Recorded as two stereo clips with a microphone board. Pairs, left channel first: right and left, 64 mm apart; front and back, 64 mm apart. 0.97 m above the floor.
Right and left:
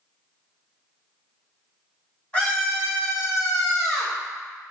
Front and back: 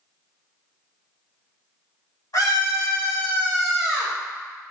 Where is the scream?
20° right, 1.8 m; by 4.2 s 130° right, 1.0 m.